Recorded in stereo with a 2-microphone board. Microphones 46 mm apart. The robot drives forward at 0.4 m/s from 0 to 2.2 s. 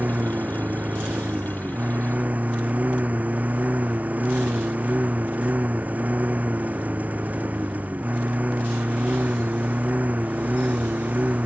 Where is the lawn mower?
40° right (ahead or behind); by 11.5 s 35° right (ahead or behind).